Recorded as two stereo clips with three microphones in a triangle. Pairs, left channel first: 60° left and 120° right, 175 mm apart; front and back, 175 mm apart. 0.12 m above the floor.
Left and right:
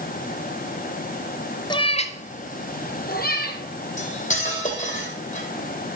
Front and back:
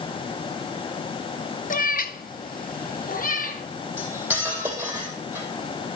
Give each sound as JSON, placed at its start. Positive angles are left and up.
{"t": 1.7, "sound": "a cat meowing", "azimuth_deg": 0, "distance_m": 0.7}
{"t": 4.0, "sound": "cutlery clinking", "azimuth_deg": 100, "distance_m": 2.5}